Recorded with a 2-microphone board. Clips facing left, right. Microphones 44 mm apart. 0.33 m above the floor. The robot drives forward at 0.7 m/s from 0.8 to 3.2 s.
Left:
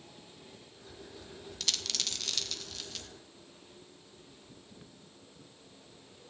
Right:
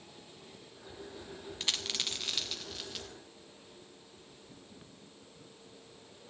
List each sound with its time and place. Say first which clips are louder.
1.6 s a dropped coin: right 1 dB; 30° right (ahead or behind), 1.1 m; by 3.1 s 15° right (ahead or behind), 2 m